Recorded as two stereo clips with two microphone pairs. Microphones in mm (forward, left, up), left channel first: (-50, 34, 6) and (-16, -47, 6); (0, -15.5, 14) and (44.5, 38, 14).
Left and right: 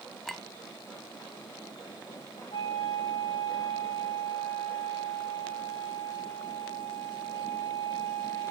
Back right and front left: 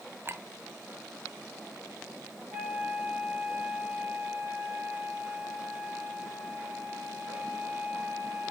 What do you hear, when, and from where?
0.2 s a clink: 30° left, 0.8 m
2.5 s a flute: 120° left, 8 m